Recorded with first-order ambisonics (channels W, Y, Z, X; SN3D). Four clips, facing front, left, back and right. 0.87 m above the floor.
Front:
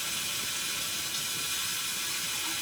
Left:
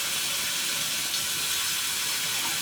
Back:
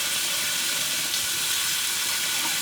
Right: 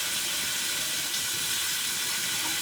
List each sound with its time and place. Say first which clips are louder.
0.0 s running water: left 1 dB, back 7 dB; 170° left, 0.8 m